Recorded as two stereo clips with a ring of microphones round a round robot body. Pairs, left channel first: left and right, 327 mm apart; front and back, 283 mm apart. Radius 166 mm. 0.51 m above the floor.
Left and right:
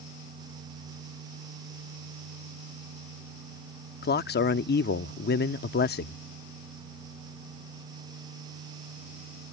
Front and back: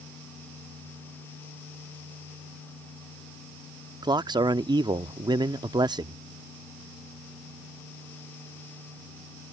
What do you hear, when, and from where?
4.0 s a man speaking: 115° left